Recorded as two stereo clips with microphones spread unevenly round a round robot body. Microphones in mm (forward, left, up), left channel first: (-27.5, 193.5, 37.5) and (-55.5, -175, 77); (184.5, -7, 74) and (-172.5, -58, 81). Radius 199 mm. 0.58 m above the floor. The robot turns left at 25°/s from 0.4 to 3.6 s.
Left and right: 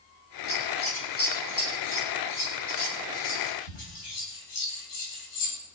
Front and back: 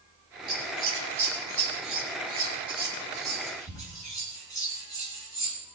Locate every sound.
0.5 s scissors: 165° left, 4.5 m; by 5.5 s 90° left, 4.5 m